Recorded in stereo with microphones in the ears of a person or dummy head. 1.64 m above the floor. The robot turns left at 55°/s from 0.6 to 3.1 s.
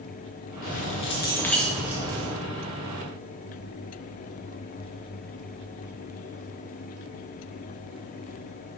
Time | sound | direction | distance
0.6 | keys jangling | 60° left | 1.5 m